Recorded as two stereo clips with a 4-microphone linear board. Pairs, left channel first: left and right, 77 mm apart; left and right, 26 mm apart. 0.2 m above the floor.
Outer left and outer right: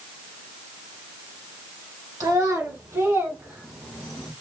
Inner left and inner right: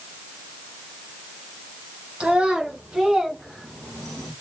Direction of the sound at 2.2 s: 55° right (ahead or behind).